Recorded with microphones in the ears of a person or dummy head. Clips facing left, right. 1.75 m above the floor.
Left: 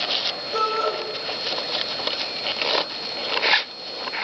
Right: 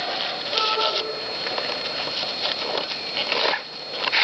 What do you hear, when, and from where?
0.5 s a shout: 60° left (ahead or behind), 7.5 m